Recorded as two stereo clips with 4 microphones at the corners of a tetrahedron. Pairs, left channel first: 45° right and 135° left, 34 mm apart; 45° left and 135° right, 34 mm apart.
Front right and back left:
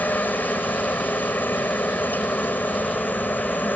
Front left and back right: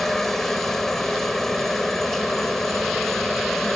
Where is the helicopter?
35° right.